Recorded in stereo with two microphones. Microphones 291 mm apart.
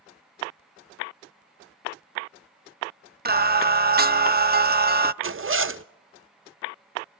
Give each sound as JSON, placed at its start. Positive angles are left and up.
{"t": 3.2, "sound": "singing", "side_deg": -35, "distance_m": 0.5}
{"t": 5.2, "sound": "a zipper", "side_deg": -45, "distance_m": 0.5}